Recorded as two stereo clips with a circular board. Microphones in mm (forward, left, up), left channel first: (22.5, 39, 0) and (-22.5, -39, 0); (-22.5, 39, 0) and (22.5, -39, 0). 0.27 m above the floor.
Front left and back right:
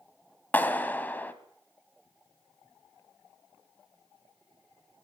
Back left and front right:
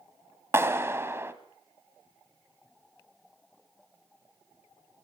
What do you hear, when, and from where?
0.5 s a clap: 5° right, 1.7 m